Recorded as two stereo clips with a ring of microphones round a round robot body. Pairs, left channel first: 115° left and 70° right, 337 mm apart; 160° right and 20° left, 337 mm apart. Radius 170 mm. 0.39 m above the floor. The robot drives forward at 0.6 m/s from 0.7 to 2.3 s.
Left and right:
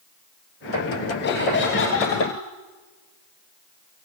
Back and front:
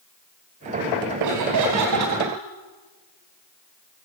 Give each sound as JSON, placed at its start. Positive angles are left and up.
{"t": 1.2, "sound": "laughter", "azimuth_deg": 55, "distance_m": 3.5}